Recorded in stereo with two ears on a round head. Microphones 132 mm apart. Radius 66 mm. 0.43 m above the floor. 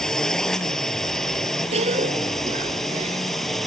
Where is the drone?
5° left (ahead or behind); by 3.7 s centre (ahead or behind).